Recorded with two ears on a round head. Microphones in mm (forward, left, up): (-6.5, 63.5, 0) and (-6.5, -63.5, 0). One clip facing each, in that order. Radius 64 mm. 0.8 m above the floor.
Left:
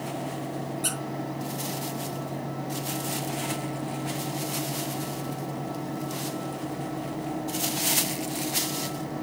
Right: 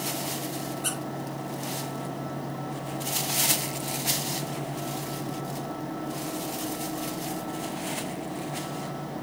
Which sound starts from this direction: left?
A squeak, at 0.8 s.